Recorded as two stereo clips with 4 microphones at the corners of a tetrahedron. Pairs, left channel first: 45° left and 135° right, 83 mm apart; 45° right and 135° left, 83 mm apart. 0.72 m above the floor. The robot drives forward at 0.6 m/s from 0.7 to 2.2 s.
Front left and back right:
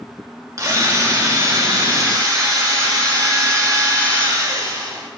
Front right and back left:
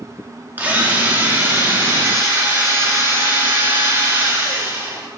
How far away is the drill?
About 1.6 m.